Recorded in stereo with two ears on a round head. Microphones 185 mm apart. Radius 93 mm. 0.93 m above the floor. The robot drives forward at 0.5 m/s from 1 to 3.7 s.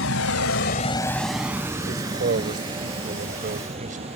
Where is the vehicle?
70° left (ahead or behind); by 4.2 s 30° right (ahead or behind).